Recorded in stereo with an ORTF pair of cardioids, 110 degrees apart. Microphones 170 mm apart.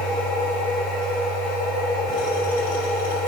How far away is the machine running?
About 2 m.